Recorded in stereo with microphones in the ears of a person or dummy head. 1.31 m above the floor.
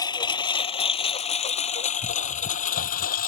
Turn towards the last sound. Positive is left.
turn(degrees=45)  # may be behind; listen again after turning